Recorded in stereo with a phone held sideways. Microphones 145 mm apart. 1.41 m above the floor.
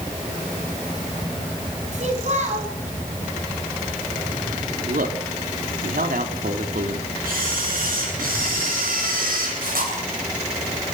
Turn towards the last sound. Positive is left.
turn(degrees=-85)